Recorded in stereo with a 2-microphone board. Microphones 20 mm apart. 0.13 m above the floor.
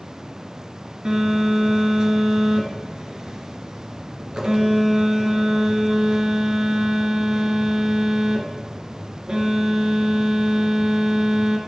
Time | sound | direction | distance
1.1 | a phone buzzing | 40° right (ahead or behind) | 2.5 m